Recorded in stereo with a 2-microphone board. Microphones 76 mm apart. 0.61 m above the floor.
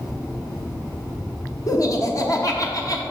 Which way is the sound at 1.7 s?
45° left (ahead or behind).